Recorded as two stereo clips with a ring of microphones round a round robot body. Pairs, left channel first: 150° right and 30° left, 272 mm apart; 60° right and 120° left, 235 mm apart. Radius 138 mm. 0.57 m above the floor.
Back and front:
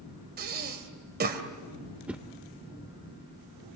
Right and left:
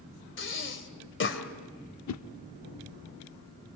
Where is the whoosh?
55° right, 0.8 m.